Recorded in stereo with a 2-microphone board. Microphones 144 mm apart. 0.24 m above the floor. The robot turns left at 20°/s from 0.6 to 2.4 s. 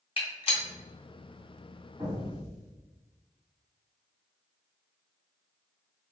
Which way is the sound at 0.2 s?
40° left (ahead or behind).